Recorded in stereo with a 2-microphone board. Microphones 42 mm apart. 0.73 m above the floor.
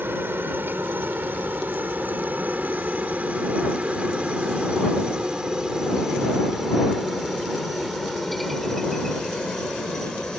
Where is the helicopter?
55° right (ahead or behind); by 10.4 s 15° left (ahead or behind).